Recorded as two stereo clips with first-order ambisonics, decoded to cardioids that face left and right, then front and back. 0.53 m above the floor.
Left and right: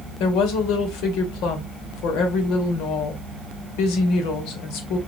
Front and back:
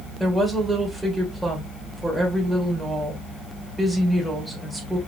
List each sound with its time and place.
0.2 s a woman speaking: 90° left, 2 m